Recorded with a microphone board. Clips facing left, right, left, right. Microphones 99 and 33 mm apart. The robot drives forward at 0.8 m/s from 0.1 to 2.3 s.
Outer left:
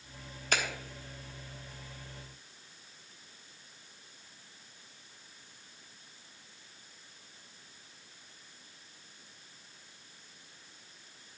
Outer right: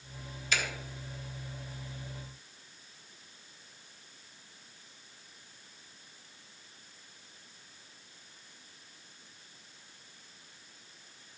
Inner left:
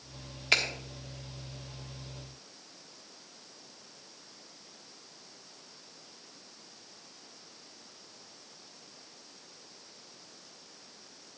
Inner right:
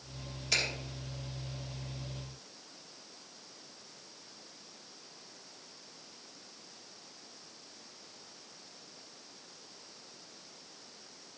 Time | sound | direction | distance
0.5 | a finger snap | 50° left (ahead or behind) | 1.5 m